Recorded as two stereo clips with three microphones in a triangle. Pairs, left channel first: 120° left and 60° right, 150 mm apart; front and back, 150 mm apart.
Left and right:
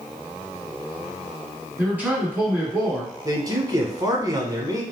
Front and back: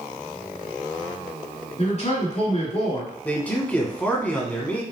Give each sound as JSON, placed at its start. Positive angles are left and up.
{"t": 1.8, "sound": "a man speaking", "azimuth_deg": 15, "distance_m": 2.0}
{"t": 3.2, "sound": "a man speaking", "azimuth_deg": -65, "distance_m": 1.1}